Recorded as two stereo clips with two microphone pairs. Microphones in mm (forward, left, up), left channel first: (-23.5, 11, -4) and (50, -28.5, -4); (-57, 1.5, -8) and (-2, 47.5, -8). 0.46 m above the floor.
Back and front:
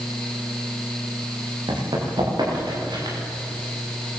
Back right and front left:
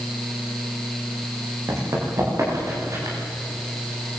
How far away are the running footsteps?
About 10 m.